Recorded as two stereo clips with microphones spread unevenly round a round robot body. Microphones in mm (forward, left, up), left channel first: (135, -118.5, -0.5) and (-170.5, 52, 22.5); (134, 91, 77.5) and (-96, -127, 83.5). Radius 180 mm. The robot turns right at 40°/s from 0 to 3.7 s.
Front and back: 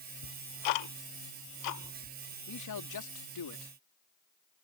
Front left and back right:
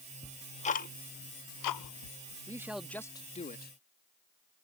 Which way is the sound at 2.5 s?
60° right.